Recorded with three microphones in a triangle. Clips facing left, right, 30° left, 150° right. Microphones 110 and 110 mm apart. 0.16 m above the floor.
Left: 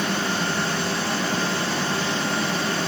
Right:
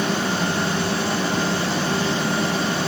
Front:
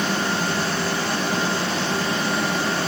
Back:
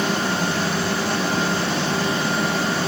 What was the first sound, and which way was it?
Only background noise.